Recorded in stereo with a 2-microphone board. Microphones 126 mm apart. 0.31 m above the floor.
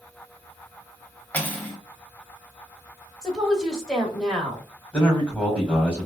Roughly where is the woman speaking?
Centre.